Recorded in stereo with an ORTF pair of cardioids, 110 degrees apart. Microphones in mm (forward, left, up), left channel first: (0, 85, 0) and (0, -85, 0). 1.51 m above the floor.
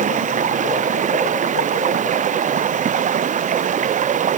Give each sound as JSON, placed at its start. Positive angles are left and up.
{"t": 0.0, "sound": "running water", "azimuth_deg": -50}